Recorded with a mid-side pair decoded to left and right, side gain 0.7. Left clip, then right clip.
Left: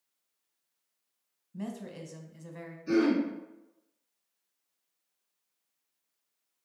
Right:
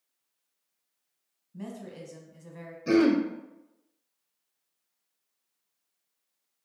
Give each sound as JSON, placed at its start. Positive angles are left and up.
{"t": 1.5, "sound": "a woman speaking", "azimuth_deg": 15, "distance_m": 0.7}
{"t": 2.9, "sound": "throat clearing", "azimuth_deg": -70, "distance_m": 0.5}